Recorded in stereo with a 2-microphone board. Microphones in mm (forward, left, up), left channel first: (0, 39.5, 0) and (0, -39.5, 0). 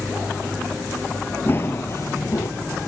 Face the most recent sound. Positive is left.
turn(degrees=50)  # may be behind; listen again after turning